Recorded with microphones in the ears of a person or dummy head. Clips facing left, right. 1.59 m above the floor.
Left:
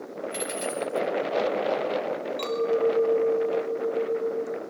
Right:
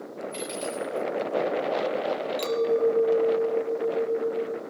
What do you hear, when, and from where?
0.3 s a dropped coin: 30° left (ahead or behind), 5 m
2.4 s a clink: 15° right (ahead or behind), 2 m